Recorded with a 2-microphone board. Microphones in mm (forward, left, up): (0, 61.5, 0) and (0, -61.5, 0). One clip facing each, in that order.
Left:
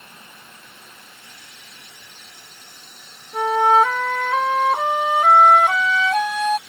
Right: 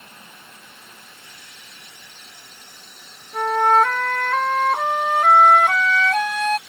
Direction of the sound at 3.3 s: 5° left (ahead or behind).